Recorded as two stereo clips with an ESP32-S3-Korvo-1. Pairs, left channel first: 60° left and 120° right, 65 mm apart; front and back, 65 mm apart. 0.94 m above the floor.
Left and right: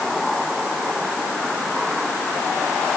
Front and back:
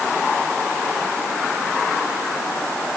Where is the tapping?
No tapping in this recording.